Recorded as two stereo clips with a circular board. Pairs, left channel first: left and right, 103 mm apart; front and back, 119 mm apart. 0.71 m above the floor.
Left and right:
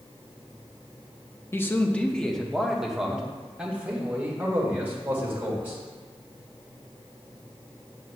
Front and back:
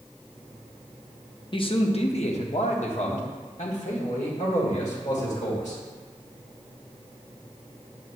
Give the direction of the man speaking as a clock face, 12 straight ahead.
11 o'clock.